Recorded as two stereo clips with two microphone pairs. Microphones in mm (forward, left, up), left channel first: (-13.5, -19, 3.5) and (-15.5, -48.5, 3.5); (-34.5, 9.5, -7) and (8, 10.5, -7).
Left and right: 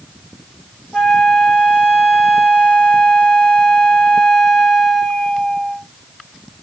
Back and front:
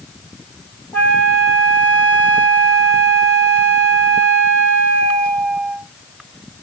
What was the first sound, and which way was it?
A flute, 160° left.